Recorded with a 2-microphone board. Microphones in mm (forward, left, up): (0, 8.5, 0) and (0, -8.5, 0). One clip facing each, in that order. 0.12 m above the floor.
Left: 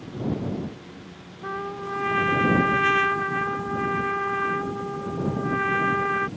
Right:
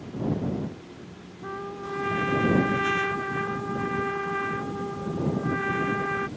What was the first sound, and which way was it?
A trumpet, 30° left (ahead or behind).